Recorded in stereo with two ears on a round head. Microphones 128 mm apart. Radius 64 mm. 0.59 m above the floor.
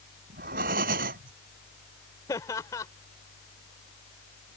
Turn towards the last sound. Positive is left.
turn(degrees=25)  # may be behind; listen again after turning